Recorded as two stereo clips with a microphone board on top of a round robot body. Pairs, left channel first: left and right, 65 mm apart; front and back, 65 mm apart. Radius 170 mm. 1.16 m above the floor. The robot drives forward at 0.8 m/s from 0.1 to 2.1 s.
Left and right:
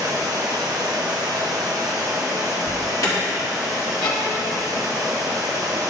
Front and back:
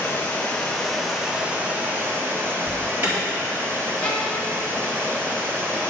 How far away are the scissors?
No scissors in this recording.